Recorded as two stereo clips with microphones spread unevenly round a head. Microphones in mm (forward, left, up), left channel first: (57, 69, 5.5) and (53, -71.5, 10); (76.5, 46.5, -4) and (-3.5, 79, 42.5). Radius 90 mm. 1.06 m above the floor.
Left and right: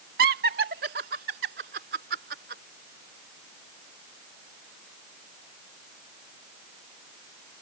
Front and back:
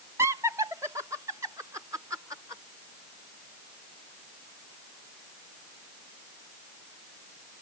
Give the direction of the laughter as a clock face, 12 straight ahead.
4 o'clock.